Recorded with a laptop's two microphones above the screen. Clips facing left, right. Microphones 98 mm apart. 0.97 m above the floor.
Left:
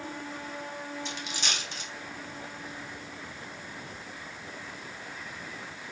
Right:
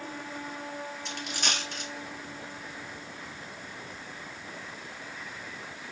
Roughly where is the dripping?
I don't hear dripping.